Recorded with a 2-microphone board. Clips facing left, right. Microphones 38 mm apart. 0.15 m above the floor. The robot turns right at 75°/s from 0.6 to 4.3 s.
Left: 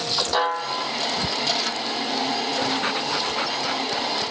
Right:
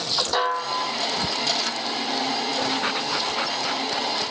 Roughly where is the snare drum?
Centre.